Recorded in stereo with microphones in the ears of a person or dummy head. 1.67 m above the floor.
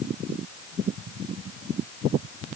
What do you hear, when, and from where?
Only background noise.